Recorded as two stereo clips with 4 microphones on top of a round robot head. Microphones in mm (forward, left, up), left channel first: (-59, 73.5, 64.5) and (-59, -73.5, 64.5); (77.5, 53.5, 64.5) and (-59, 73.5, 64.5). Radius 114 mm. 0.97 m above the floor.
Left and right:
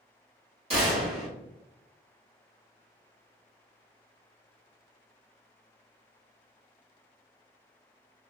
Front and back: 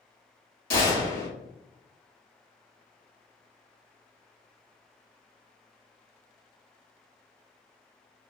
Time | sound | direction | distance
0.7 | a gunshot | 30° right | 1.5 m